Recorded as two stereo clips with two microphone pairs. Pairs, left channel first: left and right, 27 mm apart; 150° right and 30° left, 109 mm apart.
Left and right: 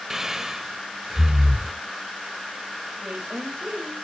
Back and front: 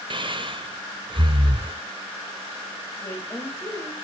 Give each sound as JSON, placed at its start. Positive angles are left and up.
{"t": 0.1, "sound": "breathing", "azimuth_deg": -10, "distance_m": 0.7}
{"t": 3.0, "sound": "a woman speaking", "azimuth_deg": -90, "distance_m": 2.5}